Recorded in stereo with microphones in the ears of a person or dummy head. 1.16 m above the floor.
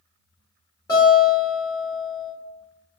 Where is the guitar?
20° left (ahead or behind), 1.8 m.